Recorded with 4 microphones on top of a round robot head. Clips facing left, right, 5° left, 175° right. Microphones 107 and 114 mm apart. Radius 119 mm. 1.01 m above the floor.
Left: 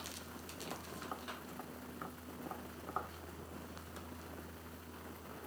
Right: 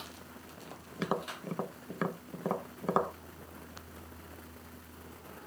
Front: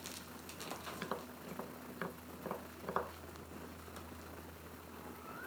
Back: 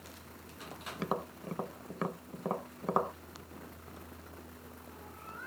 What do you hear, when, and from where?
1.0 s tapping: 115° right